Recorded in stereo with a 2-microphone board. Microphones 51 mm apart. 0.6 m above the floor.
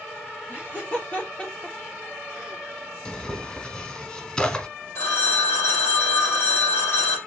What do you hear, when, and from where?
0.5 s laughter: 40° left (ahead or behind), 2.5 m; by 3.0 s 30° right (ahead or behind), 1.3 m
3.0 s tearing paper: 15° left (ahead or behind), 1.0 m
5.0 s a phone ringing: 45° left (ahead or behind), 2.5 m